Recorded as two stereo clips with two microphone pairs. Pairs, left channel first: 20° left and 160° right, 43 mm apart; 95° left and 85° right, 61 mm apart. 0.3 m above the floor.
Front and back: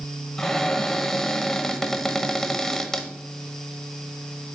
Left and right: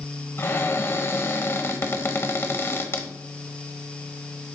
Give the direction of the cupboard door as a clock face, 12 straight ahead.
9 o'clock.